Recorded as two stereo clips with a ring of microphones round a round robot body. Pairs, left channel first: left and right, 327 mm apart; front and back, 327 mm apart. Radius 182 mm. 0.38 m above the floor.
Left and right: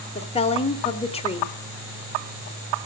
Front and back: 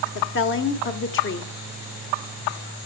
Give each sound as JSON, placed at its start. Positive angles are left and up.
{"t": 0.1, "sound": "a woman speaking", "azimuth_deg": 25, "distance_m": 1.6}